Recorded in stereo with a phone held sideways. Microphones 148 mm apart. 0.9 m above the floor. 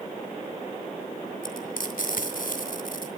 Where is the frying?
75° left (ahead or behind), 2.5 m.